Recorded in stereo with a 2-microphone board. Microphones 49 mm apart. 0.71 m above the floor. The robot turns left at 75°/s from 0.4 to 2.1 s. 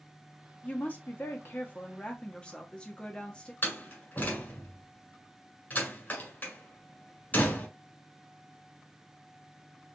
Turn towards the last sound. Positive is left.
turn(degrees=40)  # may be behind; listen again after turning